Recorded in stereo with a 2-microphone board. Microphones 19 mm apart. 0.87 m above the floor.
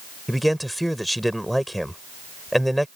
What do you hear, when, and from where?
0.3 s a man speaking: 5° right (ahead or behind)